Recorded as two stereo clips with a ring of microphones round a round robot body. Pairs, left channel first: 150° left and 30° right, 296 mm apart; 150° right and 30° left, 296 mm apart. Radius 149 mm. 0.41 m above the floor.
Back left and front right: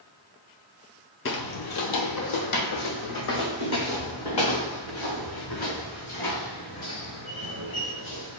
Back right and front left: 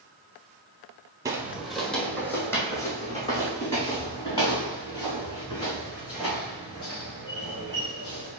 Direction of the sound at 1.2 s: 105° left.